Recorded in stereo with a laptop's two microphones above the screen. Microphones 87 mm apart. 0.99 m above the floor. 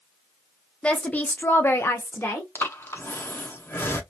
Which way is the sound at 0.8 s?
10° left (ahead or behind).